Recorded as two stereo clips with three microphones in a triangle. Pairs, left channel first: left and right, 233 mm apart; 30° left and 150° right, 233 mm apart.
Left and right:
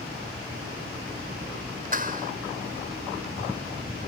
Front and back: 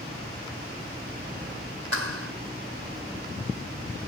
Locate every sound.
1.9 s a clap: 145° right